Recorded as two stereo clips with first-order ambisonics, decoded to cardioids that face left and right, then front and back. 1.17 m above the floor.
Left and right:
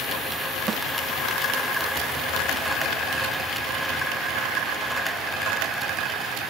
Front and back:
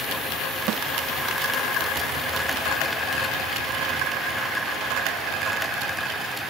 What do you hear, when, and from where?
0.7 s a snare drum: 150° right